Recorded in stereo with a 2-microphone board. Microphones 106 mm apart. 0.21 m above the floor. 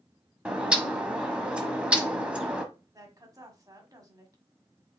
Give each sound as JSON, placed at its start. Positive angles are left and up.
{"t": 0.5, "sound": "a bird", "side_deg": -10, "distance_m": 0.9}
{"t": 2.9, "sound": "a woman speaking", "side_deg": -30, "distance_m": 1.3}